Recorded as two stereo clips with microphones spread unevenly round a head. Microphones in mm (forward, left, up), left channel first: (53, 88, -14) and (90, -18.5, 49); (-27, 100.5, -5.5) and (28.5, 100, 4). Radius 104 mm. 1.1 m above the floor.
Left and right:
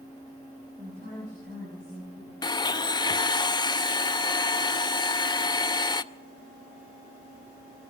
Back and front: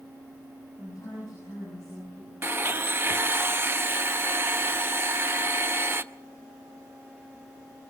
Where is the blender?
45° left, 0.8 m.